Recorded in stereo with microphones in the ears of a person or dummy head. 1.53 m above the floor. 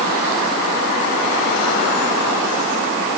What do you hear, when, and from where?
Only background noise.